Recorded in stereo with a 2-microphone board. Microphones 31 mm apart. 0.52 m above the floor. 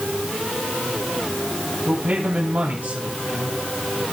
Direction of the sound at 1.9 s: 65° right (ahead or behind).